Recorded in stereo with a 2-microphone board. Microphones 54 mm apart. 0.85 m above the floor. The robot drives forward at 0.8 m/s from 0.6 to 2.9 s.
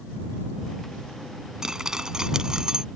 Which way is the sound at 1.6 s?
10° right (ahead or behind).